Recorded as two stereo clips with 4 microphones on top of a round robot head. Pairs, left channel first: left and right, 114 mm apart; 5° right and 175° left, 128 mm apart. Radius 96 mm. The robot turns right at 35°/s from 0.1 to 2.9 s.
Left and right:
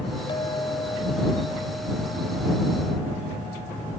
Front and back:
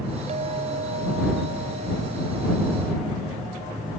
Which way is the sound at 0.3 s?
140° left.